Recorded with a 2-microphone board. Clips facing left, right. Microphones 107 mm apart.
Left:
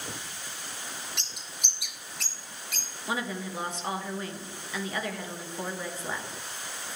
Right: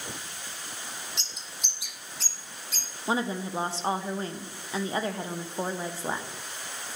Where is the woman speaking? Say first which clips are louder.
Right 4 dB; 30° right (ahead or behind), 0.5 m.